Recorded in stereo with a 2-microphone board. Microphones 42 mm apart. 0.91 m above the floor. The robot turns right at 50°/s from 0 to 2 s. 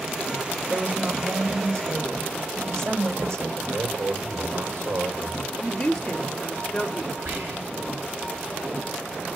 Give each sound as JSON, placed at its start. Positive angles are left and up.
{"t": 0.7, "sound": "a woman speaking", "azimuth_deg": -150, "distance_m": 3.0}
{"t": 3.6, "sound": "a man speaking", "side_deg": -85, "distance_m": 3.0}
{"t": 5.6, "sound": "a woman speaking", "side_deg": 15, "distance_m": 2.0}
{"t": 7.2, "sound": "whispering", "side_deg": -80, "distance_m": 4.0}